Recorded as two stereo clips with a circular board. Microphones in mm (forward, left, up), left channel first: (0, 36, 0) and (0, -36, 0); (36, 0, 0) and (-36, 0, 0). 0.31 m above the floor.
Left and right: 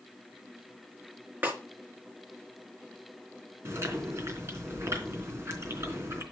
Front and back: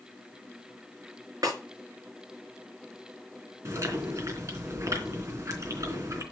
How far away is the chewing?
About 3.5 m.